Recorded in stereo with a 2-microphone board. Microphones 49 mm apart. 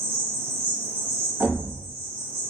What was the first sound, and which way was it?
An insect, 35° left (ahead or behind).